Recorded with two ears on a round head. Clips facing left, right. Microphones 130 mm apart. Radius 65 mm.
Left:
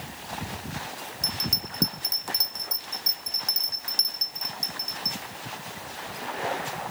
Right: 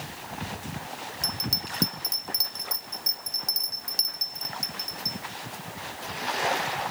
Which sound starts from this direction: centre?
A bell, at 1.2 s.